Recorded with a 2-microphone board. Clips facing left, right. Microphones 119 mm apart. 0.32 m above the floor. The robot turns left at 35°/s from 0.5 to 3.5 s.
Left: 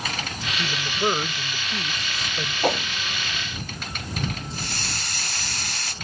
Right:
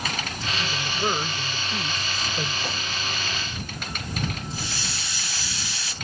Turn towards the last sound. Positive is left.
turn(degrees=55)  # may be behind; listen again after turning